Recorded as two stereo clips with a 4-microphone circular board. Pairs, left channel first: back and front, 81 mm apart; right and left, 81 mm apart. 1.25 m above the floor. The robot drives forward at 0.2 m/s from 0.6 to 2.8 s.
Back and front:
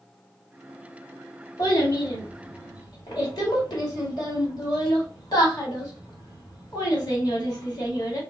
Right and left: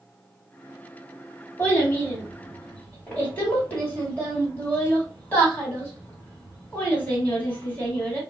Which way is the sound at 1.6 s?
155° right.